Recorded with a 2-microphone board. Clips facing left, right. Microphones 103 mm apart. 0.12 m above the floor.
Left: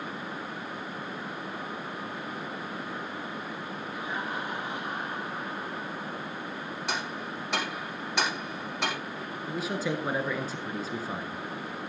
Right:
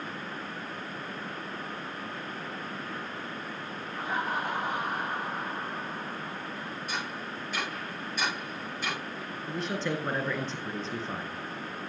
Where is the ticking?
75° left (ahead or behind), 5.5 m.